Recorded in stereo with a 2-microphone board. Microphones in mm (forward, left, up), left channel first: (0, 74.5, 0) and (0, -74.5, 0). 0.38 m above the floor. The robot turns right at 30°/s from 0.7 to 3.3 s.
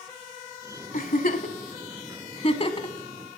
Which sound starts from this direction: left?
A giggle, at 0.9 s.